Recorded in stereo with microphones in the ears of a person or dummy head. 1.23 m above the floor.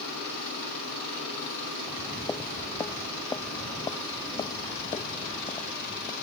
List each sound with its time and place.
1.8 s footsteps: 10° left (ahead or behind); by 6.1 s 30° left (ahead or behind)